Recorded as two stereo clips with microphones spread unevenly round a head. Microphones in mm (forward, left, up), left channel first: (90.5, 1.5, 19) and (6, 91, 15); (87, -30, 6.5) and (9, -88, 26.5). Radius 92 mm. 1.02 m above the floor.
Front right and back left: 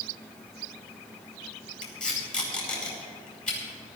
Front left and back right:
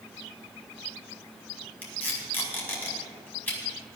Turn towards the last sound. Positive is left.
turn(degrees=-35)